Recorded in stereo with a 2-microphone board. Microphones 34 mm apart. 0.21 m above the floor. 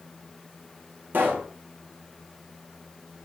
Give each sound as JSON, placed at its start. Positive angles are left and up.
{"t": 1.1, "sound": "a pop", "side_deg": -75, "distance_m": 4.0}